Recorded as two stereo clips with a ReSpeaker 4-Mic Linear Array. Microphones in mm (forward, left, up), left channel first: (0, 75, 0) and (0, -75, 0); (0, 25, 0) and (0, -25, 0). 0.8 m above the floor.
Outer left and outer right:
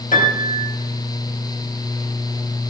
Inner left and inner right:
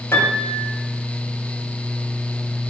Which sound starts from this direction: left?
A piano, at 0.1 s.